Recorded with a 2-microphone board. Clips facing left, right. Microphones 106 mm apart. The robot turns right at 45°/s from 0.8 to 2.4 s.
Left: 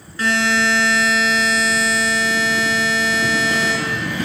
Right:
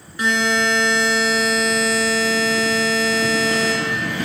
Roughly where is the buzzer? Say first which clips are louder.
Left 1 dB; behind.